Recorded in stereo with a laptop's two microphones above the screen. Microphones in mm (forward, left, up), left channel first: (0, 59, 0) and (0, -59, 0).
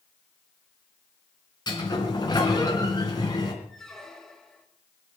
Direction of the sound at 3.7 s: 5° left (ahead or behind).